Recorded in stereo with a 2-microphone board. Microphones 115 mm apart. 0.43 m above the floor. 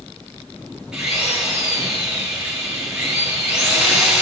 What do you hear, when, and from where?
0.9 s a drill: 5° right (ahead or behind), 6.5 m